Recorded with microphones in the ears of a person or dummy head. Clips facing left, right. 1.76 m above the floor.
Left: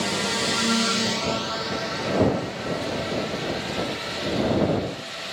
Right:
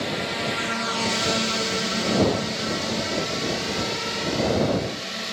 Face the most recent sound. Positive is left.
turn(degrees=-60)  # may be behind; listen again after turning